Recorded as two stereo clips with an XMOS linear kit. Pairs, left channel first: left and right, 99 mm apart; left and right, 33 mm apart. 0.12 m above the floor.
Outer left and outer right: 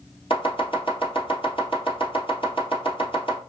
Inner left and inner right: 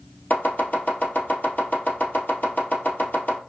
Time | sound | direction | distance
0.3 | chopping | 60° left (ahead or behind) | 2.0 m